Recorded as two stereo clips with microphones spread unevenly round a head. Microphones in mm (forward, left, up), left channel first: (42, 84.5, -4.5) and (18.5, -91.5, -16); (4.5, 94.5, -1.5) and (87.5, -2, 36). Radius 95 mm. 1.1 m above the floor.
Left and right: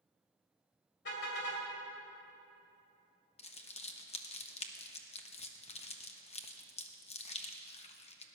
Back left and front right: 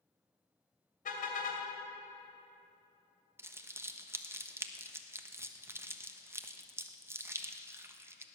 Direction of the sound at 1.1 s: 115° left.